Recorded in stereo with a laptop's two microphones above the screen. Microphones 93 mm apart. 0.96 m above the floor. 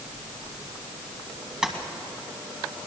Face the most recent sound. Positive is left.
turn(degrees=-10)  # may be behind; listen again after turning